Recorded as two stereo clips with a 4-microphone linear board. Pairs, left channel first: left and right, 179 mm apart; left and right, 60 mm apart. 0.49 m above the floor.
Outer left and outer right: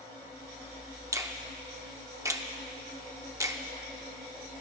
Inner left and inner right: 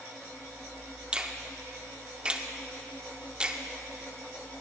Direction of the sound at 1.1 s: 20° right (ahead or behind).